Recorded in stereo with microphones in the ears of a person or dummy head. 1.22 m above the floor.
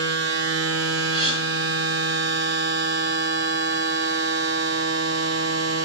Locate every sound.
0.0 s a machine running: 75° right (ahead or behind), 0.8 m
1.1 s a gasp: 35° right (ahead or behind), 4 m